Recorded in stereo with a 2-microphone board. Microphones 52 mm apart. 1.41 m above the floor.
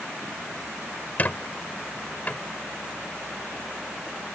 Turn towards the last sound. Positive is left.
turn(degrees=30)  # may be behind; listen again after turning